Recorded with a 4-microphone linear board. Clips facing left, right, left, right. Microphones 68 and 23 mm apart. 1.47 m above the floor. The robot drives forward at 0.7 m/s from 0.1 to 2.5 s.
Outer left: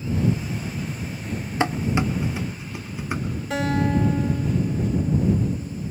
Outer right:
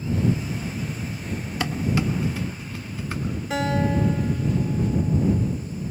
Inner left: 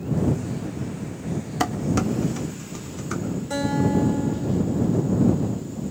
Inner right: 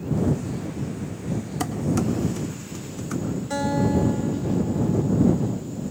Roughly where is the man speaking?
I don't hear a man speaking.